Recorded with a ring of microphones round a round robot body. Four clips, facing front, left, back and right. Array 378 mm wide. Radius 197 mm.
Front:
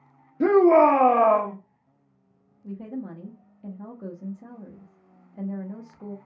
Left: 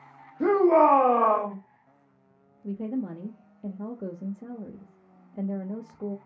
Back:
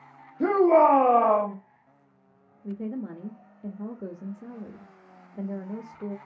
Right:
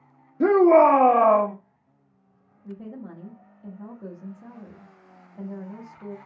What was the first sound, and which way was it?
A shout, 70° right.